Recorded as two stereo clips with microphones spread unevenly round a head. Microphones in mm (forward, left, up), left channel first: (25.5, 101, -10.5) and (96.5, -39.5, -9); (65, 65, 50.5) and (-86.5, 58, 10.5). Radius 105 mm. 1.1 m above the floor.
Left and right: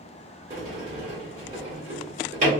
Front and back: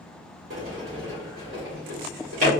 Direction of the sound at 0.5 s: 120° right.